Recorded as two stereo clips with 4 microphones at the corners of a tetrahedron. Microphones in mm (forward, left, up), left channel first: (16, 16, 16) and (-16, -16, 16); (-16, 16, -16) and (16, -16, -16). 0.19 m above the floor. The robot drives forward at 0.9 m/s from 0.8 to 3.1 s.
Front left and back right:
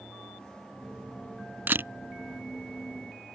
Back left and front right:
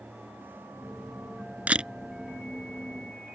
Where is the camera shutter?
95° right; by 1.9 s 115° right.